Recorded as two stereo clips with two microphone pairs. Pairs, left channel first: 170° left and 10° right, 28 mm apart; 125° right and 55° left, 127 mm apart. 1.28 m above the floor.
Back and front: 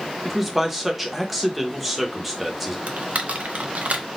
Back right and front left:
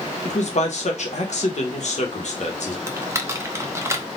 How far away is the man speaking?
About 1.0 m.